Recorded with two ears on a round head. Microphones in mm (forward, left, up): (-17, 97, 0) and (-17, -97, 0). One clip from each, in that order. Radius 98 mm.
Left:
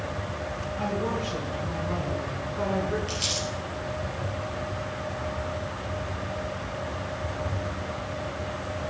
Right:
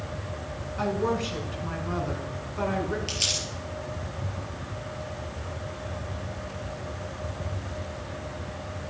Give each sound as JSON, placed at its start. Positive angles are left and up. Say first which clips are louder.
{"t": 0.8, "sound": "a woman speaking", "louder": "right 3 dB", "side_deg": -80, "distance_m": 6.0}
{"t": 3.1, "sound": "crumpling", "louder": "right 1 dB", "side_deg": -30, "distance_m": 6.0}